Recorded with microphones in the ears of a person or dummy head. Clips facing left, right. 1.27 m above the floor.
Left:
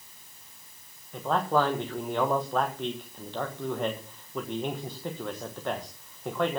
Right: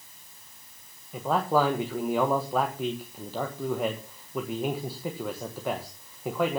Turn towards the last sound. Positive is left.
turn(degrees=0)  # may be behind; listen again after turning